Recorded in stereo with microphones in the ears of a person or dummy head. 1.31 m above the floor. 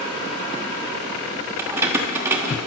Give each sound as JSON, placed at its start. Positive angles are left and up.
{"t": 1.6, "sound": "keys jangling", "side_deg": -20, "distance_m": 1.2}